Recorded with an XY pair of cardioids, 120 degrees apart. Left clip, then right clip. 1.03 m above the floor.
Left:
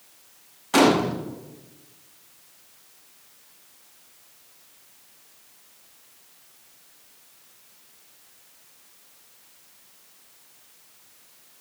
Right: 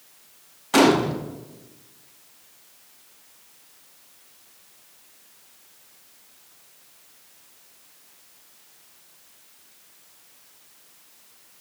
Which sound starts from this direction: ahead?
A gunshot, at 0.7 s.